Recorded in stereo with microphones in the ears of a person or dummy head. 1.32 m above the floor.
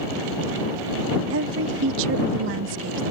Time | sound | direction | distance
1.3 | a woman speaking | 70° right (ahead or behind) | ?